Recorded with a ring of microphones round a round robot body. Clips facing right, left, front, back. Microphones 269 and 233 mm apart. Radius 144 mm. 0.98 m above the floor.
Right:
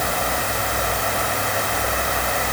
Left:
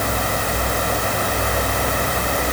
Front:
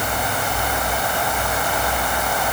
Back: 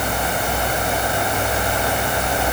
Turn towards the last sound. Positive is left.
No sound to turn to.